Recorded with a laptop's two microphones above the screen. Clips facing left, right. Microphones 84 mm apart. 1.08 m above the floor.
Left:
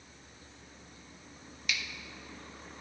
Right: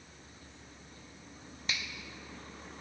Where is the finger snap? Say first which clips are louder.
Left 2 dB; 30° right (ahead or behind), 1.2 m.